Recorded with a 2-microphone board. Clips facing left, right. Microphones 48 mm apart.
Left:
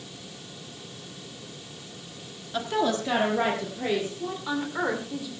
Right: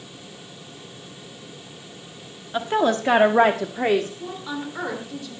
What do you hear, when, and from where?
2.5 s a woman speaking: 25° right (ahead or behind), 1.4 m; by 4.1 s 60° right (ahead or behind), 1.8 m
4.2 s a woman speaking: 10° left (ahead or behind), 3 m